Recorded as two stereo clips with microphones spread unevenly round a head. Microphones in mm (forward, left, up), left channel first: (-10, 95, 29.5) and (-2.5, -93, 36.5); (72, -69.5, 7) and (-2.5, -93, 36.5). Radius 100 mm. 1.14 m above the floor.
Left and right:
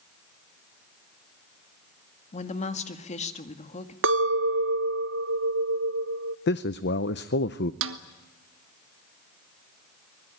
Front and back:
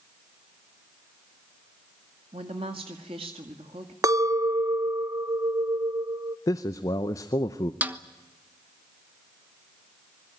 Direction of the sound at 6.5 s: 60° left.